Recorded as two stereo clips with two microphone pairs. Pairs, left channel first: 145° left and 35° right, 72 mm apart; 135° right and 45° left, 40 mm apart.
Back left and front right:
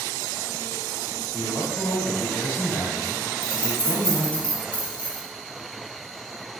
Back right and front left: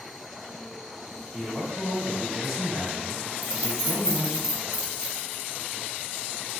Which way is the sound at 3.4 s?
110° left.